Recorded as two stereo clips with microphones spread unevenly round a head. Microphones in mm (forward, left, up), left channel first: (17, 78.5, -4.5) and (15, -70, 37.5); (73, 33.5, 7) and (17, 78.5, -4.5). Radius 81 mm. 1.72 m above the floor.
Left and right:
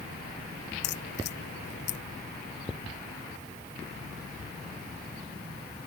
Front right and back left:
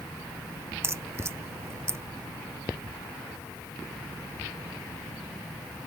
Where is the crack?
85° left.